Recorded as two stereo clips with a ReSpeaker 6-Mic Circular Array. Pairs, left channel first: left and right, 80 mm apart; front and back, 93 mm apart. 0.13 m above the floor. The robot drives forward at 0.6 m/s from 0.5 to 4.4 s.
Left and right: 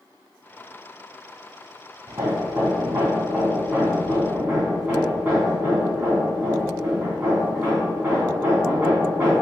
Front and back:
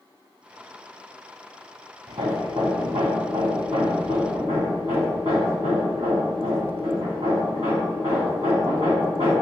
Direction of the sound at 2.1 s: 145° right.